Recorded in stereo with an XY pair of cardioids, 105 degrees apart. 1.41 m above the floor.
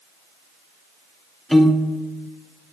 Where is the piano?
5° right, 0.5 m.